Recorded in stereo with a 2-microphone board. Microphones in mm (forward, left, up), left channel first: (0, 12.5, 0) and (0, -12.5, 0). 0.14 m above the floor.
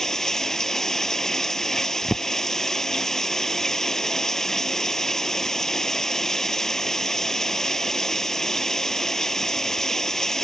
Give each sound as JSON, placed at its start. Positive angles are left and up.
{"t": 0.0, "sound": "running water", "side_deg": 20}